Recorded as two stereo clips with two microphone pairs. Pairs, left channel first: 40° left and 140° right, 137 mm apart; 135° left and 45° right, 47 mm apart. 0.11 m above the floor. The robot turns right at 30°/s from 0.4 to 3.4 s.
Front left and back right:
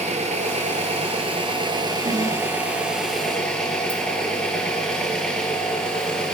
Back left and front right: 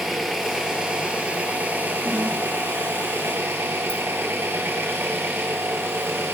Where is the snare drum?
115° right, 5.5 m; by 2.3 s 105° right, 5.5 m.